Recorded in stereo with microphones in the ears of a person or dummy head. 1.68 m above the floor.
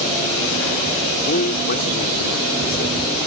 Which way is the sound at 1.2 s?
40° left (ahead or behind).